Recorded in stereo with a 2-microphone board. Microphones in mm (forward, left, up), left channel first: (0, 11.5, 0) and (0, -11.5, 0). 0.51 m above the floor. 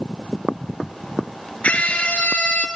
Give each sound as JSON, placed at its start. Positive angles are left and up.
{"t": 1.6, "sound": "a scream", "side_deg": 75, "distance_m": 7.0}